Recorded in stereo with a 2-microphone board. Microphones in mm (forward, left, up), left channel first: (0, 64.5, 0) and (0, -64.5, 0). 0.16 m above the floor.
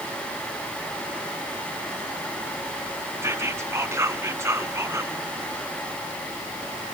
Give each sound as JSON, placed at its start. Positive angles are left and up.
{"t": 3.2, "sound": "whispering", "side_deg": -20, "distance_m": 1.2}